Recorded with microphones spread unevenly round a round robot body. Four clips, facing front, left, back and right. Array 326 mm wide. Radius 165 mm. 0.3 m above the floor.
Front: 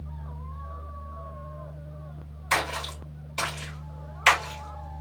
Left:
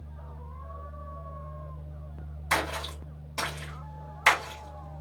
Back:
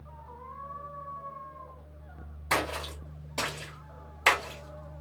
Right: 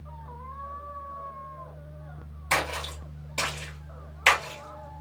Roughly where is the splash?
Behind.